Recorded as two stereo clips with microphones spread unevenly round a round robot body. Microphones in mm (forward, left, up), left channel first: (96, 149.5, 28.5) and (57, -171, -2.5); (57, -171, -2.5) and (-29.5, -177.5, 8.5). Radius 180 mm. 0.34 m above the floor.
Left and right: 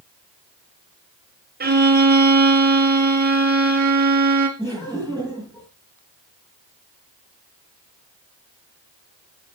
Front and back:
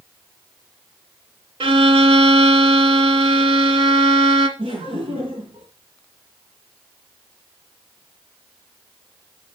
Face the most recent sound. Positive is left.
turn(degrees=170)